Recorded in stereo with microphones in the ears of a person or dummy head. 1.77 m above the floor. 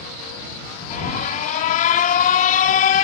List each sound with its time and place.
0.9 s an alarm: 45° left (ahead or behind)